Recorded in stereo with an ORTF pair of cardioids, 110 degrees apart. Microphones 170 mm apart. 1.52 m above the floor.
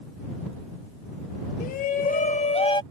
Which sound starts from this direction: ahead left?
A shout, at 1.6 s.